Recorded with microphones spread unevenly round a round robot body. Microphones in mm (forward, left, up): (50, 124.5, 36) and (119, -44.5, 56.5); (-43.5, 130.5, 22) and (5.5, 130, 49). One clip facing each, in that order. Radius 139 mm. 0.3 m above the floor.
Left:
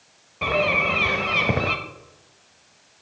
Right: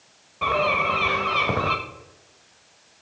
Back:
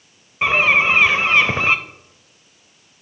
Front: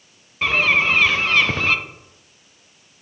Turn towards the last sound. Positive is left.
turn(degrees=175)